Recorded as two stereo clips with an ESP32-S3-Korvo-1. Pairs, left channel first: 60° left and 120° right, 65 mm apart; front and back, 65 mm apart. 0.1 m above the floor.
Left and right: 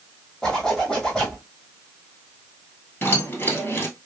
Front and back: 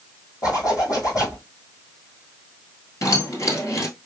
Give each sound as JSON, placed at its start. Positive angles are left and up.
{"t": 0.4, "sound": "a zipper", "azimuth_deg": -25, "distance_m": 2.0}
{"t": 3.0, "sound": "keys jangling", "azimuth_deg": 10, "distance_m": 1.7}